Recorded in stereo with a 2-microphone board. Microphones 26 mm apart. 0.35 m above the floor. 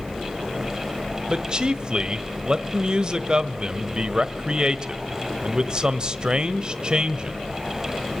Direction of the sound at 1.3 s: 30° right (ahead or behind).